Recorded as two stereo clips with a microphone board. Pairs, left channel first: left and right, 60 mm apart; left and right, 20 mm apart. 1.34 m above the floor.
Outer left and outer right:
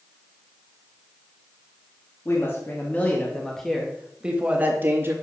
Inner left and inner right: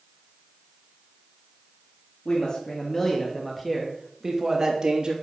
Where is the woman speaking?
40° left (ahead or behind), 3 m; by 5.1 s 40° right (ahead or behind), 3 m.